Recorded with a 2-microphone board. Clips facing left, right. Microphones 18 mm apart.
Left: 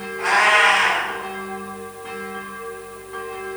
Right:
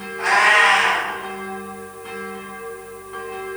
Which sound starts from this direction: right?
A cat meowing, at 0.2 s.